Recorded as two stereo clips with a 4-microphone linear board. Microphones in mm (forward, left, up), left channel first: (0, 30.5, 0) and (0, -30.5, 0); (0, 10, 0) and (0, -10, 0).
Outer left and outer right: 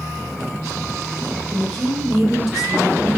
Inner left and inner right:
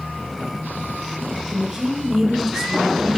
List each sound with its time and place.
1.5 s a woman speaking: 5° left (ahead or behind), 2 m; by 3.2 s 15° right (ahead or behind), 1.6 m